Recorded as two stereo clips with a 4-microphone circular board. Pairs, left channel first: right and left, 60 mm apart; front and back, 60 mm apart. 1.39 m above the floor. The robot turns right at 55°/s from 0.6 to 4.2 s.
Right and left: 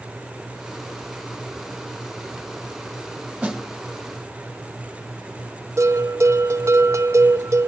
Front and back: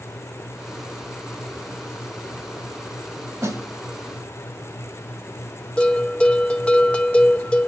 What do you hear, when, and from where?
3.4 s a snare drum: 160° left, 2.5 m; by 3.6 s 170° left, 2.5 m
5.8 s a bell: 70° left, 0.5 m